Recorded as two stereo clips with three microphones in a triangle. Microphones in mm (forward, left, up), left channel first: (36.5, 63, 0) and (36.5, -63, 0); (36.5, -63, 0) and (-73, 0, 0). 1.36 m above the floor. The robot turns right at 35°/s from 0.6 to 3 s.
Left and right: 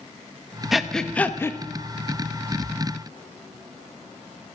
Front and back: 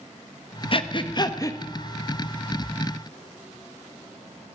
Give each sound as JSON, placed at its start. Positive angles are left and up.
{"t": 0.7, "sound": "breathing", "azimuth_deg": -5, "distance_m": 0.8}